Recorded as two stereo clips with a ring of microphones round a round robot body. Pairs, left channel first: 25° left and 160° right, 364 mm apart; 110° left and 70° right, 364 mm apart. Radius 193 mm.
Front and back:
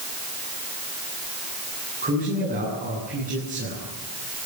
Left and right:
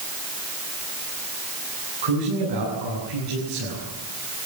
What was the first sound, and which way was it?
A man speaking, 90° right.